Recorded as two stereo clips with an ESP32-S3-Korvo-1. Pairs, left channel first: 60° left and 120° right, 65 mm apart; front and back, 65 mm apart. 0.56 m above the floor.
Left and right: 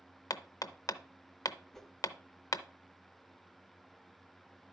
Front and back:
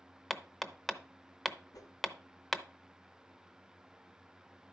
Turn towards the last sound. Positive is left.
turn(degrees=-25)